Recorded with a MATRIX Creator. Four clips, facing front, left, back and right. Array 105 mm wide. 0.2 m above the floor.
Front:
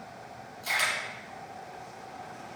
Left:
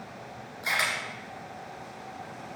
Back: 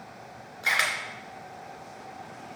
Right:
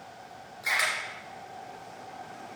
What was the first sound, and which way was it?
A camera shutter, 175° left.